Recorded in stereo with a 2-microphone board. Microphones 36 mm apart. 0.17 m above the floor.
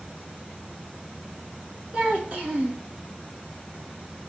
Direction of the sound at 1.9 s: 45° right (ahead or behind).